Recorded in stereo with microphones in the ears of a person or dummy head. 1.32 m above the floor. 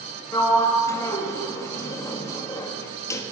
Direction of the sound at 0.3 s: 15° left (ahead or behind).